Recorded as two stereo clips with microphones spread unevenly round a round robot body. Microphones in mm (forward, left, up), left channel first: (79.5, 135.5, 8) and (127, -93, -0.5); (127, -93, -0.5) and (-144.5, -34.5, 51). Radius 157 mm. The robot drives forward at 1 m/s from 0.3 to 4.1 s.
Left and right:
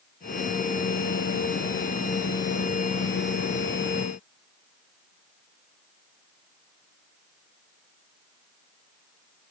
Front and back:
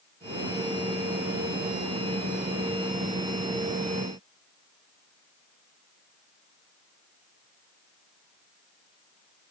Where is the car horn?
I don't hear a car horn.